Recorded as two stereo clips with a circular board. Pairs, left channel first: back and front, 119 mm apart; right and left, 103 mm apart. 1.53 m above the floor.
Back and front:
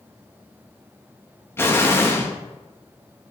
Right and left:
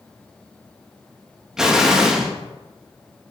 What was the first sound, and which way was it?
An explosion, 165° left.